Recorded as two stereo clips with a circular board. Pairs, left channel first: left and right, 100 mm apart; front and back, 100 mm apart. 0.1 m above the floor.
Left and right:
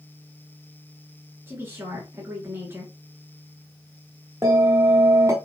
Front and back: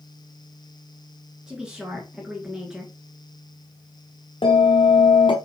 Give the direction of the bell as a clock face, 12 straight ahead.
1 o'clock.